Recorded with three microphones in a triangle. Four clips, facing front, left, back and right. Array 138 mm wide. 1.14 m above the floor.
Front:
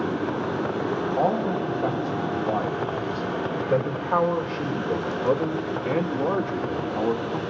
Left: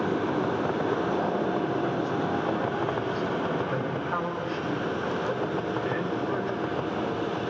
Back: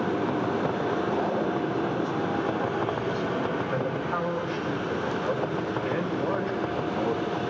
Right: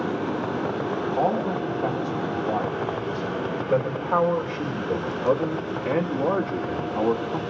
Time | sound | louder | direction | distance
1.2 | a man speaking | right 3 dB, front 3 dB | 35° right | 7.5 m